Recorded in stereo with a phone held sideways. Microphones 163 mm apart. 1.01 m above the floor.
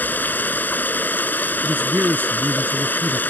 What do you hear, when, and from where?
0.0 s running water: 10° left (ahead or behind)
1.6 s a man speaking: 10° right (ahead or behind)